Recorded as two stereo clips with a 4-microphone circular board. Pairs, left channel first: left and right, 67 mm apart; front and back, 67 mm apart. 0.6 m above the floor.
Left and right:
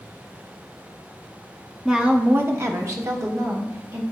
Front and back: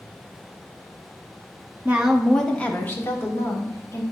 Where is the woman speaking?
155° right, 0.6 m; by 4.0 s 45° right, 1.9 m.